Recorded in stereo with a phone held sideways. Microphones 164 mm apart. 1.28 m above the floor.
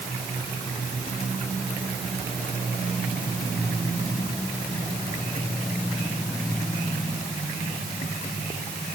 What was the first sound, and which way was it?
Only background noise.